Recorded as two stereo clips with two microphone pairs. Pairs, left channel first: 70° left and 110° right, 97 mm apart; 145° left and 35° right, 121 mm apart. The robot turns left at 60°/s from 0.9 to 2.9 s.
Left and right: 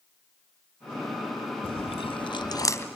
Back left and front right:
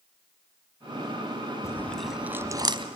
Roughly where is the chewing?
Left.